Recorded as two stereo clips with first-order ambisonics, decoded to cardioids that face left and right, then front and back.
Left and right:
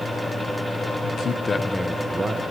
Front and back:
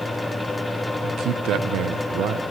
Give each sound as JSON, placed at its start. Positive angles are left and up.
{"t": 1.0, "sound": "a man speaking", "azimuth_deg": 135, "distance_m": 1.0}